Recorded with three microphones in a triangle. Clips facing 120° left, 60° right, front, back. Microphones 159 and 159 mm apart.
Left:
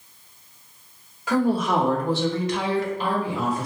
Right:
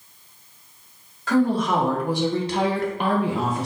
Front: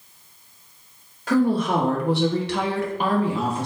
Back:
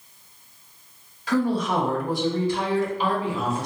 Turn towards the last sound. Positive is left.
turn(degrees=-60)